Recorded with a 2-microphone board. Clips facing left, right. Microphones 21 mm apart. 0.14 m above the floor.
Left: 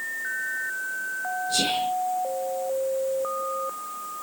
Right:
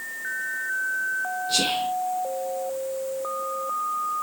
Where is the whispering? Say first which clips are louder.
Right 1 dB; 55° right (ahead or behind), 3 m.